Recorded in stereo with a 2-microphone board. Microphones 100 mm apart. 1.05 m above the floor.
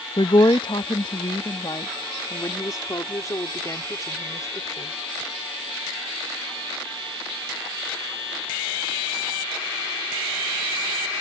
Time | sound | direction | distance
0.2 | a woman speaking | 55° left (ahead or behind) | ?